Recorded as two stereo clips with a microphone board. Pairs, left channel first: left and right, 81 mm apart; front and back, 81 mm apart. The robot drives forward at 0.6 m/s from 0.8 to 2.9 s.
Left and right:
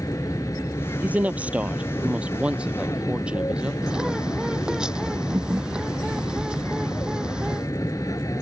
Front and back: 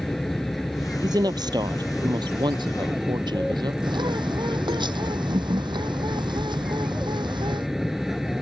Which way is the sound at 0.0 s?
90° left.